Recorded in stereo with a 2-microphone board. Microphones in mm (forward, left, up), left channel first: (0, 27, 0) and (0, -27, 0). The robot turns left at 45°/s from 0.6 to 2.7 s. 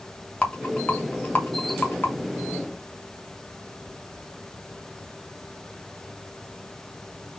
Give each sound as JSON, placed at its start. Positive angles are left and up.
{"t": 0.4, "sound": "a rattle", "side_deg": 20, "distance_m": 0.9}